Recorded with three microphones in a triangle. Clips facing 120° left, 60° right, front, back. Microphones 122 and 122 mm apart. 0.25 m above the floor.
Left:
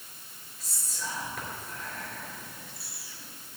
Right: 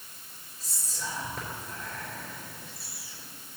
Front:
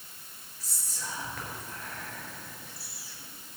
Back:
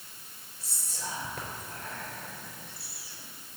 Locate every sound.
0.6 s whispering: 120° right, 4 m